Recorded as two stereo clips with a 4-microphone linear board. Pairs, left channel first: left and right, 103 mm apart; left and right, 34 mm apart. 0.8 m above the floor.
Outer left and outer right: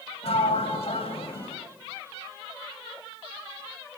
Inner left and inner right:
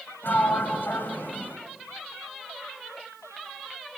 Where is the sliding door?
70° left (ahead or behind), 3 m.